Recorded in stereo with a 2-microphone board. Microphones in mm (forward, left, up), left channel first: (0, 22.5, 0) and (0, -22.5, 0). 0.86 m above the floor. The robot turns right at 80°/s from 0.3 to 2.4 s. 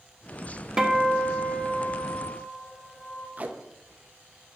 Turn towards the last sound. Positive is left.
turn(degrees=-35)  # may be behind; listen again after turning